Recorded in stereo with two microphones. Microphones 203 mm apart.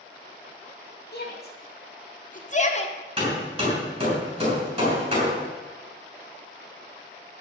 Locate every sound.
1.1 s a shout: 55° left (ahead or behind), 2.5 m; by 3.0 s 30° left (ahead or behind), 1.4 m
3.2 s hammering: 25° right (ahead or behind), 7 m